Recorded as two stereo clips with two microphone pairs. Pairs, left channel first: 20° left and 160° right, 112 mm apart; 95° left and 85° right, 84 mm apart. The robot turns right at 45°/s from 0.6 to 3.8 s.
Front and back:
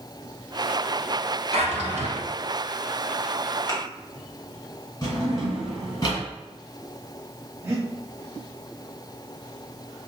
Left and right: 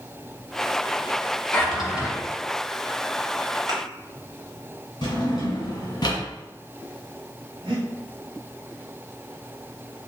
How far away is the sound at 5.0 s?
About 1.8 m.